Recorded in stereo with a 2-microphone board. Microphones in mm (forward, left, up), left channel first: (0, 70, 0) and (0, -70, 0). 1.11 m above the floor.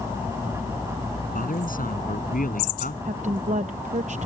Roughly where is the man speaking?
Left.